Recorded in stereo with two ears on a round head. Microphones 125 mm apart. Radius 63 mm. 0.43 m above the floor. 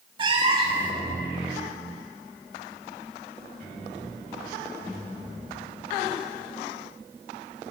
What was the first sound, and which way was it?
A cat meowing, 40° right (ahead or behind).